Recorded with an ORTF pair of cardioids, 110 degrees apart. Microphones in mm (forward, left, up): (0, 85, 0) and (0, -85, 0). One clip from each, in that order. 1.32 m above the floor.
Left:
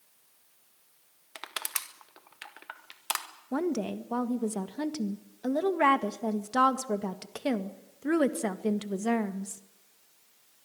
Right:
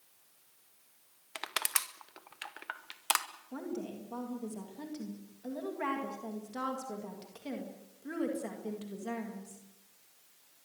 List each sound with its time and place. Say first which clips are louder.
1.4 s crushing: right 2 dB; 15° right, 1.8 m
3.5 s a woman speaking: left 11 dB; 65° left, 1.8 m